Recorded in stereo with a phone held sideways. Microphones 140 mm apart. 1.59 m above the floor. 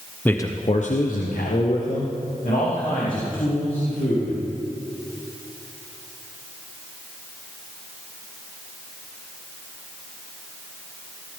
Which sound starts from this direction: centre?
A man speaking, at 0.2 s.